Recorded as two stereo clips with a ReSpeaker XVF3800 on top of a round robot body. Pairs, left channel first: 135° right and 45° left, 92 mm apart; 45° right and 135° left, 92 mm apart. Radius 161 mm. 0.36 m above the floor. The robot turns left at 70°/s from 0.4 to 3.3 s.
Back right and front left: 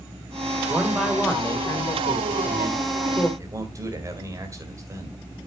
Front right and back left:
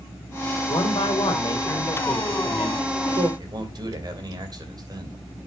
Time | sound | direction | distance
0.7 | a man speaking | 20° right | 2.5 m
3.4 | a man speaking | 95° left | 3.5 m